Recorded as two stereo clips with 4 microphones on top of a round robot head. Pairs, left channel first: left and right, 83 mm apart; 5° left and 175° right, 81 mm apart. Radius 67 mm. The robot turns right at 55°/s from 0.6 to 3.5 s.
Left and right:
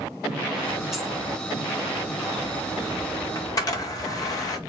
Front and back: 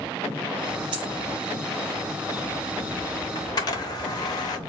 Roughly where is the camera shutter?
Ahead left.